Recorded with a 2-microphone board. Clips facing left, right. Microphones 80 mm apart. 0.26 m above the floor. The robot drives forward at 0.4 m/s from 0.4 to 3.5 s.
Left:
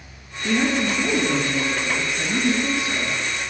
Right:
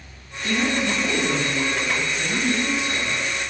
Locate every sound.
0.4 s a woman speaking: 15° left (ahead or behind), 4.5 m; by 3.2 s 20° left (ahead or behind), 3.5 m